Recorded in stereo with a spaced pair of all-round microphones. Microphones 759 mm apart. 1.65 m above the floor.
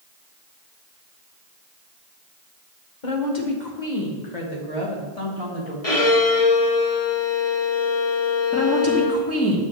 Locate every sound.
3.0 s a woman speaking: 75° left (ahead or behind), 1.6 m; by 5.7 s 50° left (ahead or behind), 2.5 m
5.8 s a violin: 50° left (ahead or behind), 1.5 m
8.5 s a woman speaking: 20° left (ahead or behind), 1.8 m